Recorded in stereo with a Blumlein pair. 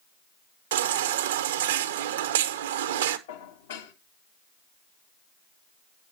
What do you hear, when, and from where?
0.7 s a baby crying: 60° right, 1.0 m
3.3 s dishes clattering: 55° left, 1.6 m